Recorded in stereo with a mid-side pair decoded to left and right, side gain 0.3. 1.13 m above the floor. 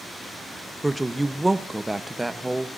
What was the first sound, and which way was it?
A woman speaking, 20° right.